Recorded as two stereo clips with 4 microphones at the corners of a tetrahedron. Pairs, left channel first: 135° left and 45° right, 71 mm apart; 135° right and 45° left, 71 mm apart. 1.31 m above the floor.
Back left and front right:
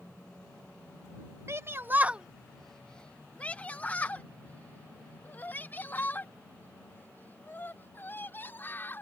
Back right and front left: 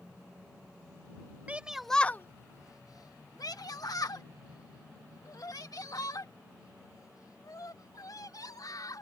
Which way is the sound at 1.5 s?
15° right.